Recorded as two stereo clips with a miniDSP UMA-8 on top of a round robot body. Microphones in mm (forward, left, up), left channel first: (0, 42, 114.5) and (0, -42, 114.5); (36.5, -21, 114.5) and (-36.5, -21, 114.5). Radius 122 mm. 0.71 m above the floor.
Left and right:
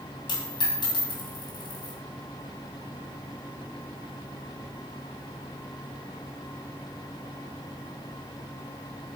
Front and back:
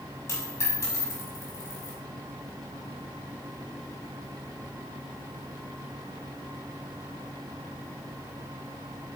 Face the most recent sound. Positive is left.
turn(degrees=55)